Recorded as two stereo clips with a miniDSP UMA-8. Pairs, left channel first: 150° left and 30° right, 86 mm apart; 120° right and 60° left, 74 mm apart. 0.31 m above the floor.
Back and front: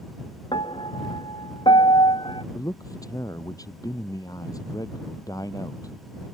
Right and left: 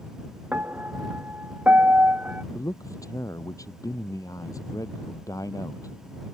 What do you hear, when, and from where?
0.5 s a piano: 130° left
2.5 s a man speaking: 165° right